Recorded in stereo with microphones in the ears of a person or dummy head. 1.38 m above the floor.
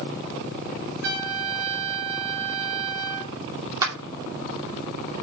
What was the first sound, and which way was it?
A trumpet, 65° right (ahead or behind).